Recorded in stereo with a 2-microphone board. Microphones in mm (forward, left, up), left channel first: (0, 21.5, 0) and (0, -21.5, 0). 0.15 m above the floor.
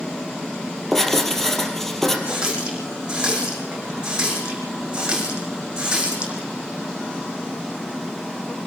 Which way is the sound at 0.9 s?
10° left (ahead or behind).